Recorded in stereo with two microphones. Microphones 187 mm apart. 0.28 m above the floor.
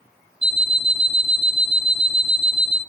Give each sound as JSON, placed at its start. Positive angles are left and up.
{"t": 0.4, "sound": "an alarm clock", "side_deg": -35, "distance_m": 0.6}